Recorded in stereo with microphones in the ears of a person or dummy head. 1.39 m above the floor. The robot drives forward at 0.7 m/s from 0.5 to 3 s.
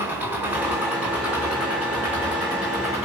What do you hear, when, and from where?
0.0 s an engine running: 10° right (ahead or behind), 4 m; by 3.1 s 5° right (ahead or behind), 6 m